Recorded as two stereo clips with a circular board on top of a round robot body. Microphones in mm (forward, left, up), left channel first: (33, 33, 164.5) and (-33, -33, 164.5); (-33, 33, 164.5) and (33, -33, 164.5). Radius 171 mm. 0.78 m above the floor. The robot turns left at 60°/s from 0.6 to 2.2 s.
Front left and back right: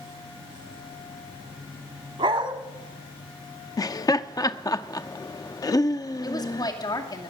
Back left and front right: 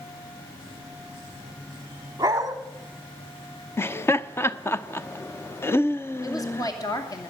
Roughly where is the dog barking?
Right.